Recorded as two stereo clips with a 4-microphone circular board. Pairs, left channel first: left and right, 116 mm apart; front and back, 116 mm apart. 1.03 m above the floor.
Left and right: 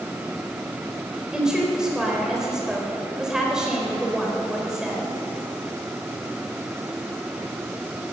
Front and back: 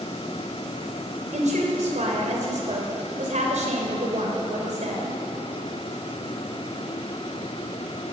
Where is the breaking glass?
No breaking glass in this recording.